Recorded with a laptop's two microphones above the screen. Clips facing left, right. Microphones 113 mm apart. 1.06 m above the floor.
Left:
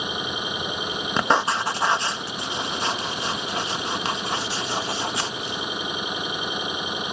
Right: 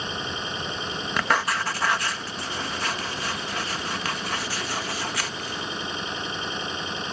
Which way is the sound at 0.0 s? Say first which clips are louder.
Left 2 dB; 15° left (ahead or behind).